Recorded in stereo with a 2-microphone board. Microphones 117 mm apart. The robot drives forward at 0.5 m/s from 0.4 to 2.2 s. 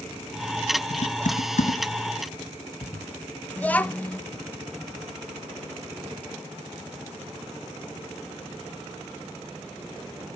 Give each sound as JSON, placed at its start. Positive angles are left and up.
{"t": 0.9, "sound": "typing on a keyboard", "side_deg": 70, "distance_m": 1.5}
{"t": 3.6, "sound": "a child speaking", "side_deg": 15, "distance_m": 0.6}